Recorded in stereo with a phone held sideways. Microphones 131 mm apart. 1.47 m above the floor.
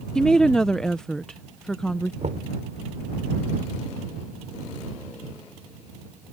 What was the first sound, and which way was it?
A woman speaking, 5° left (ahead or behind).